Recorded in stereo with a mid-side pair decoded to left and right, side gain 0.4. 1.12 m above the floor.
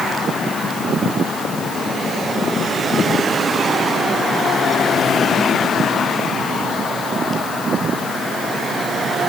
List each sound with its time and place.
Only background noise.